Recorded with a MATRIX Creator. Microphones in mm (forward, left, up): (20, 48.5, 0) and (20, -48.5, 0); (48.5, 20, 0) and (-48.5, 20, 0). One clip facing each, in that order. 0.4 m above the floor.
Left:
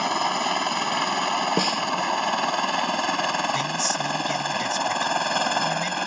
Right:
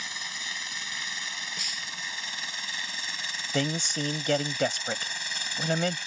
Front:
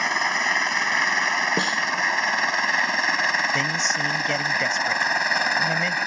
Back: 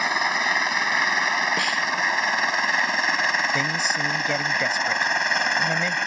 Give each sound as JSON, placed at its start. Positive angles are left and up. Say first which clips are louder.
{"t": 0.0, "sound": "a helicopter", "louder": "left 18 dB, even", "azimuth_deg": 95}
{"t": 1.6, "sound": "a snare drum", "louder": "left 18 dB, front 1 dB", "azimuth_deg": 65}
{"t": 3.5, "sound": "a man speaking", "louder": "left 4 dB, even", "azimuth_deg": -95}